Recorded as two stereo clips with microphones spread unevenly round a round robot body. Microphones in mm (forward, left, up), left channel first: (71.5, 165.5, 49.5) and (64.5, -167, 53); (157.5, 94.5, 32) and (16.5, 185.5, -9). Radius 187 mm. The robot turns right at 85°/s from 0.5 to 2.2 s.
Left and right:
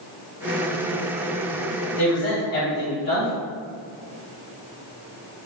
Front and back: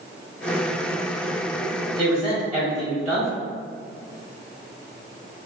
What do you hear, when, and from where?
2.0 s a man speaking: 85° left, 1.2 m; by 3.3 s 105° left, 1.2 m